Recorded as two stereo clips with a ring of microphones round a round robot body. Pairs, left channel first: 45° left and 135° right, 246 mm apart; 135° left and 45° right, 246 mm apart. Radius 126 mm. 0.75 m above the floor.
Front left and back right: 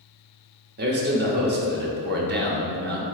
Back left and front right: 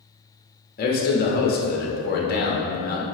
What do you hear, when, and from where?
0.8 s a man speaking: straight behind, 1.3 m